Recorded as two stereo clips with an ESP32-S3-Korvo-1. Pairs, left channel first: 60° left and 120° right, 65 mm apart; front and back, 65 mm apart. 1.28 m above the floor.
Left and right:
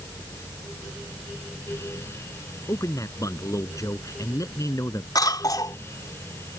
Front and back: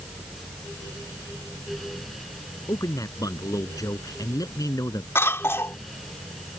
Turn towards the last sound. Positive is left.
turn(degrees=50)